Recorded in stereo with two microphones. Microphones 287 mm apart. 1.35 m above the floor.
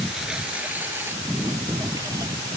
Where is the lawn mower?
Centre (ahead or behind); by 2.6 s 15° right (ahead or behind).